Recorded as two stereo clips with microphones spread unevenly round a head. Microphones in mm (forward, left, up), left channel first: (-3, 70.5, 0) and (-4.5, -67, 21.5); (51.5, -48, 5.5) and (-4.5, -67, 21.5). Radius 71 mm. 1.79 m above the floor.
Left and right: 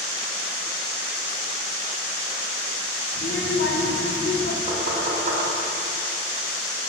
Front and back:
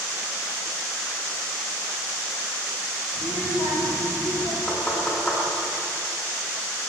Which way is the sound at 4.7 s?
55° right.